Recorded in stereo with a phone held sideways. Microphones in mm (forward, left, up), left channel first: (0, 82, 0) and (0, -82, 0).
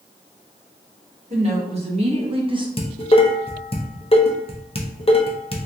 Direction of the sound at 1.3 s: 40° right (ahead or behind).